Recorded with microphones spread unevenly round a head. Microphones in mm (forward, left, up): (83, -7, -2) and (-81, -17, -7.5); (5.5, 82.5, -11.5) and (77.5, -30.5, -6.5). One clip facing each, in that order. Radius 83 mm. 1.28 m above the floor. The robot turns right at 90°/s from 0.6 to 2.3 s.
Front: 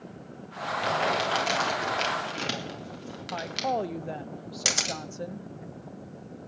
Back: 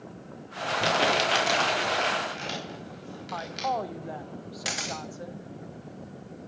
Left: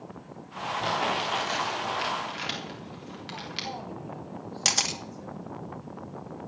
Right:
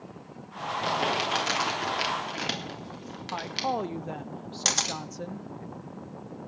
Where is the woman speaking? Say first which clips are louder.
Front 1 dB, right 9 dB; 55° right, 0.7 m.